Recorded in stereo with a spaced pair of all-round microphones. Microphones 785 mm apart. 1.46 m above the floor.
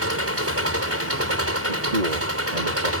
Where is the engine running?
15° right (ahead or behind).